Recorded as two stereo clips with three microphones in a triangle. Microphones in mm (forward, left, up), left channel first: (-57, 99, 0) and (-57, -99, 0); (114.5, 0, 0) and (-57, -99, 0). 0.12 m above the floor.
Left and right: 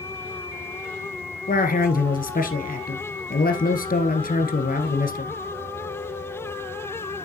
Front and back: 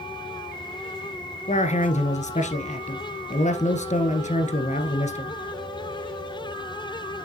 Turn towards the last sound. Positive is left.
turn(degrees=70)